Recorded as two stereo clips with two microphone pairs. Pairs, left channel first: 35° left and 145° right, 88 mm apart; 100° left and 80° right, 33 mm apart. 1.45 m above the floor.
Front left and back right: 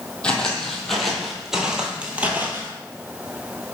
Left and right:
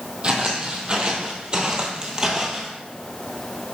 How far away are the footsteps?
About 2.0 m.